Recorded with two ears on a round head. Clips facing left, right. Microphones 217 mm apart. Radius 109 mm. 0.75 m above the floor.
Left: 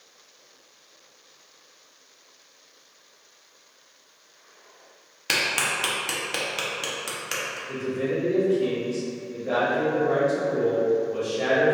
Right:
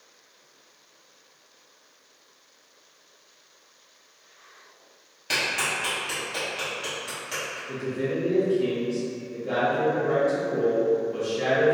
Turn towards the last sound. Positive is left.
turn(degrees=-25)  # may be behind; listen again after turning